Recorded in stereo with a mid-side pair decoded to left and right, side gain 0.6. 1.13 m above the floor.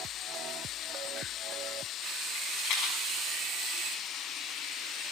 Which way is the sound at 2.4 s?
60° left.